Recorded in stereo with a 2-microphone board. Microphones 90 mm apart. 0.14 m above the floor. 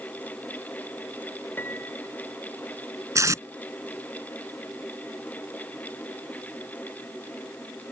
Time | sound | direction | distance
1.6 | a piano | 20° left (ahead or behind) | ?
3.1 | tape being pulled | 35° right (ahead or behind) | ?